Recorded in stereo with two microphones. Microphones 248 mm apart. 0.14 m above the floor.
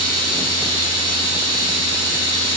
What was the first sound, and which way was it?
Running water, 80° left.